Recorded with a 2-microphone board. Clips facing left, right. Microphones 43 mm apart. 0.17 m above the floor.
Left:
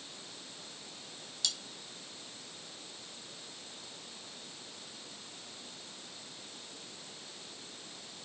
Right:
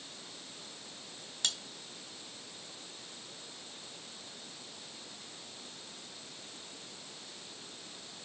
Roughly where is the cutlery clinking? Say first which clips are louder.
Right 3 dB; right.